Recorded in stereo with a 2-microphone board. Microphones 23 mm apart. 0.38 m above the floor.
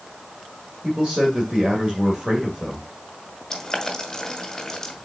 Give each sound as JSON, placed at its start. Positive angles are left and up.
{"t": 0.8, "sound": "a man speaking", "side_deg": -35, "distance_m": 1.7}
{"t": 3.5, "sound": "boiling", "side_deg": 20, "distance_m": 1.9}